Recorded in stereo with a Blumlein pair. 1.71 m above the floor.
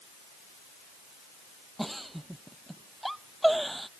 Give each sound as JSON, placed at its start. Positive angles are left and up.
{"t": 1.8, "sound": "a giggle", "azimuth_deg": -5}